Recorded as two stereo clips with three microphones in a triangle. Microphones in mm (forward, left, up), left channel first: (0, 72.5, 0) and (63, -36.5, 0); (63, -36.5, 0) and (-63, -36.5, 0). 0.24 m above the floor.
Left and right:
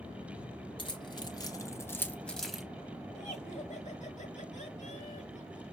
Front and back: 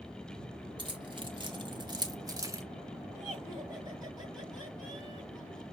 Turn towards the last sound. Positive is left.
turn(degrees=125)